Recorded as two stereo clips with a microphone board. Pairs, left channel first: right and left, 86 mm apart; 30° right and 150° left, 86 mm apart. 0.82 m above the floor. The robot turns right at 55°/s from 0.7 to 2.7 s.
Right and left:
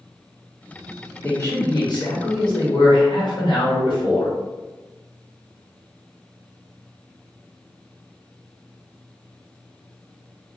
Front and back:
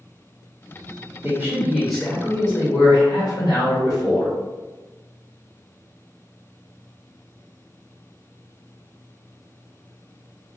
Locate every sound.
1.2 s a man speaking: 155° right, 1.3 m; by 4.3 s 75° right, 1.3 m